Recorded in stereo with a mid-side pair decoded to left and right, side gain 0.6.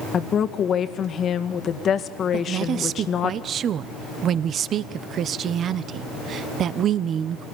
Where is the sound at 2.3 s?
45° right, 1.0 m.